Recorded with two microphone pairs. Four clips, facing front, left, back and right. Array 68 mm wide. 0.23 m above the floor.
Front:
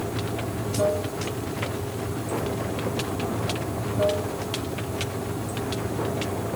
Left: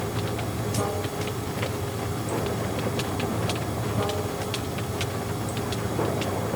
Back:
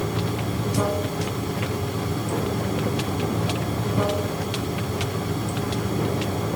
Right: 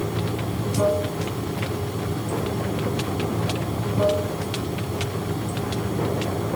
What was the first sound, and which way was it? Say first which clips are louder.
Running water: right 3 dB, back 3 dB; straight behind.